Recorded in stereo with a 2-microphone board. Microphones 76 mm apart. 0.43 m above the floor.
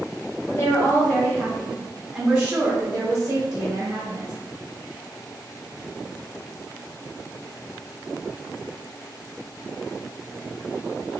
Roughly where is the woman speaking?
Left.